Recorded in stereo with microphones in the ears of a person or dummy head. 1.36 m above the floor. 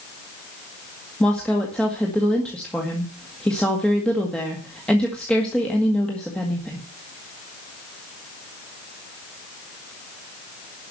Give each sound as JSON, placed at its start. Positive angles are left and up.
{"t": 1.2, "sound": "a woman speaking", "side_deg": 5, "distance_m": 1.9}